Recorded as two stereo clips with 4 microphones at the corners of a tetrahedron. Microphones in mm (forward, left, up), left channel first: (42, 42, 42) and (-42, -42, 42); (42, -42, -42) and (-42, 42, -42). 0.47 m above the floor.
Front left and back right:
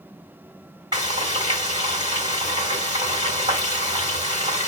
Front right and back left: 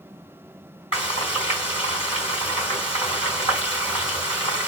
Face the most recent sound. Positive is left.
turn(degrees=-85)